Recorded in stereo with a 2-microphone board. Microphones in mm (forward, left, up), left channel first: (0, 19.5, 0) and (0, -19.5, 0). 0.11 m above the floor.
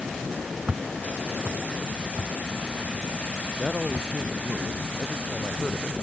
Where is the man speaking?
Centre (ahead or behind).